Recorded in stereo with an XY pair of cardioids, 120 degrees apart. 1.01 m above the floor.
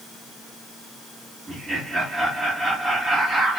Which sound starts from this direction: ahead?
Laughter, at 1.5 s.